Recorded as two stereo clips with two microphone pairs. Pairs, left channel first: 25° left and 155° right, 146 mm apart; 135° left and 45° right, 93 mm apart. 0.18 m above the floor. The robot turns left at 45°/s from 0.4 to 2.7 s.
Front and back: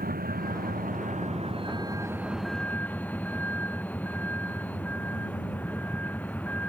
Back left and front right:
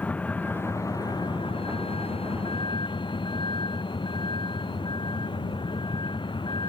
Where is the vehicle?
155° right; by 6.7 s 105° left.